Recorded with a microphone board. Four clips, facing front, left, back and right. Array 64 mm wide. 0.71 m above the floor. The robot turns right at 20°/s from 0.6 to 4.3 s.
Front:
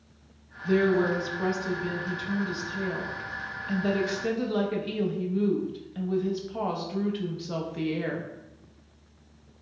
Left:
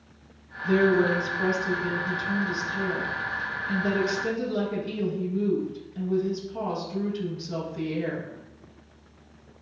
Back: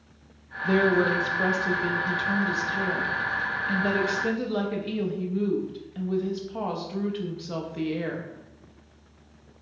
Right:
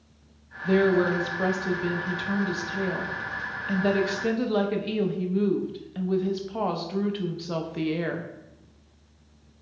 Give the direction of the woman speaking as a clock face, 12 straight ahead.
5 o'clock.